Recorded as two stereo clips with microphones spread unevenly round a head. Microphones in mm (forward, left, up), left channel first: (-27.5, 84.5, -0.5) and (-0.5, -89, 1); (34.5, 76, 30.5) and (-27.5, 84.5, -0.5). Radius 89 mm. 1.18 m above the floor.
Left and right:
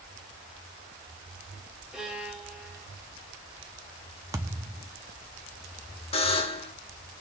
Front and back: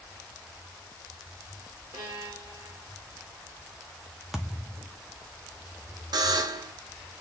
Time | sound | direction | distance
1.9 | a violin | 165° right | 2.5 m
4.3 | a thud | 30° right | 0.6 m
6.1 | a buzzer | 155° left | 1.4 m